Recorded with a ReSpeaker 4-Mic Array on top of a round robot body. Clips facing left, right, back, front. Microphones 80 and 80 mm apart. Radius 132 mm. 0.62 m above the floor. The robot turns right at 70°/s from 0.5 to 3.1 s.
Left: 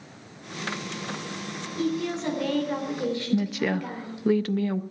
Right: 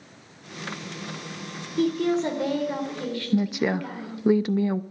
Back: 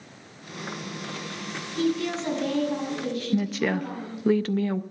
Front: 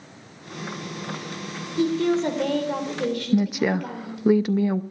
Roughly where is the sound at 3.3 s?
Ahead right.